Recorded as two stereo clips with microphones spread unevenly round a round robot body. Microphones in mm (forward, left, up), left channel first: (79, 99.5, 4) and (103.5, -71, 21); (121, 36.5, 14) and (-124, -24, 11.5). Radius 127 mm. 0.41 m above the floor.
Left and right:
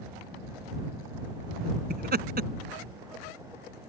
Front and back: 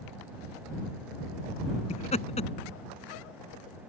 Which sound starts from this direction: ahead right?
Laughter, at 1.9 s.